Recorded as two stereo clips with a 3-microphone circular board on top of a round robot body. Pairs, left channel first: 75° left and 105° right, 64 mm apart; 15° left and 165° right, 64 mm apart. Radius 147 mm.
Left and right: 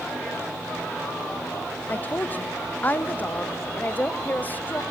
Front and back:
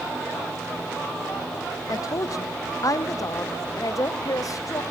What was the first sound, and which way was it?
A woman speaking, 20° left.